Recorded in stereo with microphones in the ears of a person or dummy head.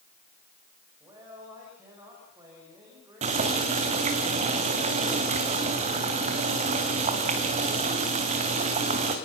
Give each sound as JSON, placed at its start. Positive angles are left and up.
{"t": 1.0, "sound": "a man speaking", "side_deg": -15, "distance_m": 6.5}
{"t": 3.2, "sound": "boiling", "side_deg": -30, "distance_m": 2.5}